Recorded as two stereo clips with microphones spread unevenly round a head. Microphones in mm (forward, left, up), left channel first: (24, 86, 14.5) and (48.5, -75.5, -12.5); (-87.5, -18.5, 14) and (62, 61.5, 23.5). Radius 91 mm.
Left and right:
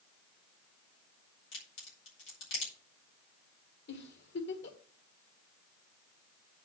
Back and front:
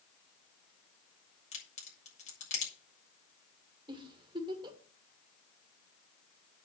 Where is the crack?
160° left, 6.5 m.